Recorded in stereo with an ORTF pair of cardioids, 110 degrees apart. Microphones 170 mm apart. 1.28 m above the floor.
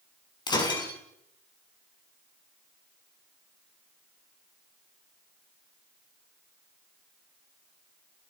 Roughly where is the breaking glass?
Ahead left.